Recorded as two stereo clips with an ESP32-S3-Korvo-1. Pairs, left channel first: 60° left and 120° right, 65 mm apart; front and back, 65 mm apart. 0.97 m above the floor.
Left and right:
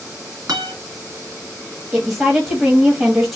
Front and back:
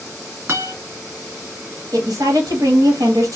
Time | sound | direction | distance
0.5 | a guitar | 125° right | 2 m
1.9 | a woman speaking | 175° left | 1.2 m